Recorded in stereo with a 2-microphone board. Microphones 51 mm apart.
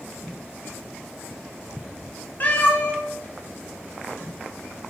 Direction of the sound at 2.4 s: 40° left (ahead or behind).